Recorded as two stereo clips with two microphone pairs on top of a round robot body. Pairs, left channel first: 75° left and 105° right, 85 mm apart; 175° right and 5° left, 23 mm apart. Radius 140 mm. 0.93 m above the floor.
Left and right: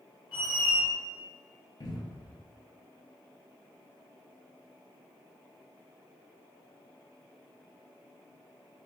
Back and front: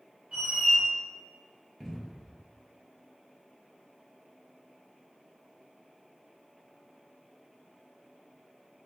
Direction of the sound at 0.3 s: 40° left.